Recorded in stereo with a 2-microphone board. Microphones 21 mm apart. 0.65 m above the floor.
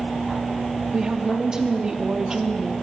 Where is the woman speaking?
35° right (ahead or behind), 0.7 m.